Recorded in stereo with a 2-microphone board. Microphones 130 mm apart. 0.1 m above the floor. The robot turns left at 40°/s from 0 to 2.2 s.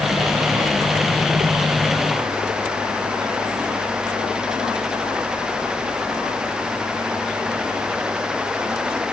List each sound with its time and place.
Only background noise.